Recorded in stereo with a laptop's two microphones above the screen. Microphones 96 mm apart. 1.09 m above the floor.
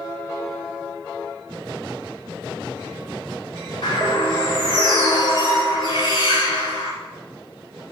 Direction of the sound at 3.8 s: 70° left (ahead or behind).